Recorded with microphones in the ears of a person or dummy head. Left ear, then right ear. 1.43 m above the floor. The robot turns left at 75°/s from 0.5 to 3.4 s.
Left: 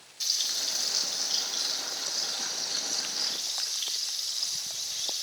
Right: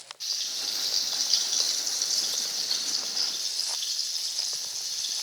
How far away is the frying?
About 5 m.